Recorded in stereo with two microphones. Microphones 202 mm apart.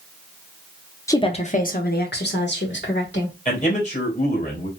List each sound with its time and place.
1.1 s a woman speaking: 15° left (ahead or behind), 0.6 m; by 3.4 s 70° left (ahead or behind), 2 m
3.5 s a man speaking: 40° left (ahead or behind), 2.5 m